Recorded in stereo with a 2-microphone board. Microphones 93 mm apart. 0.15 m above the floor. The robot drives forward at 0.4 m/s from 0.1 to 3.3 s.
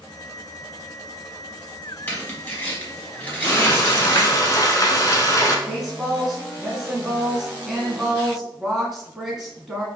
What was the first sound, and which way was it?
Tearing paper, 20° left (ahead or behind).